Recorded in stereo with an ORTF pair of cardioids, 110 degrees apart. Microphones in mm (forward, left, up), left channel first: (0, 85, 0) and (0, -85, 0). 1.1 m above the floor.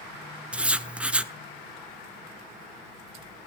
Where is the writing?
5° right, 0.7 m.